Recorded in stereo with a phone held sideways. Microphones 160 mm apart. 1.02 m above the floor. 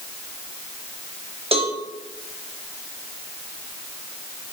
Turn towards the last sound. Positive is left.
turn(degrees=-35)  # may be behind; listen again after turning